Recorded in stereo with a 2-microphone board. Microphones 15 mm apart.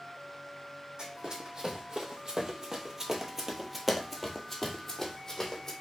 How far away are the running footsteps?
About 1.7 m.